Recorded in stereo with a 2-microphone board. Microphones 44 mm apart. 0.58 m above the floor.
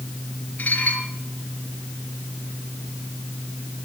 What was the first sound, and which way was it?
Dishes clattering, 35° left (ahead or behind).